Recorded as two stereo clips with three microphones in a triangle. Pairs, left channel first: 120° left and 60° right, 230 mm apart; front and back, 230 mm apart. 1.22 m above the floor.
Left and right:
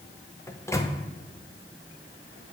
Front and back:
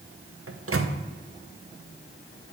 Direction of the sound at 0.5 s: 165° right.